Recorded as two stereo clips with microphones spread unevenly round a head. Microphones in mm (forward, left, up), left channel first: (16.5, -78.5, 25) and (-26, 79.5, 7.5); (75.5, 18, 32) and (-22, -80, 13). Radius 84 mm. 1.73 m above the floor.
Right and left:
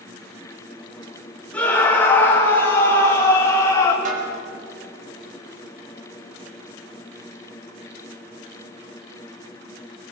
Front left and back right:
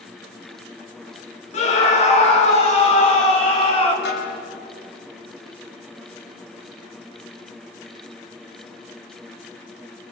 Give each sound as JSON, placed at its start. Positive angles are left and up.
{"t": 1.5, "sound": "a scream", "azimuth_deg": 5, "distance_m": 4.0}
{"t": 4.0, "sound": "a snare drum", "azimuth_deg": 60, "distance_m": 5.0}